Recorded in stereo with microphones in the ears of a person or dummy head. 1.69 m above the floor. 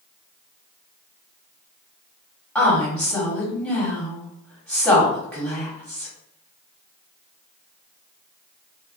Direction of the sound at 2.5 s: 5° left (ahead or behind).